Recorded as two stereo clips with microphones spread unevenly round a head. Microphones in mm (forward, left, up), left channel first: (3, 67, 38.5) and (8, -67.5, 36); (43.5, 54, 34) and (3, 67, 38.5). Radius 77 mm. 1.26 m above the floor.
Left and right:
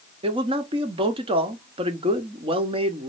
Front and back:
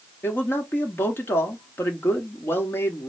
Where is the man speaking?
40° right, 1.1 m.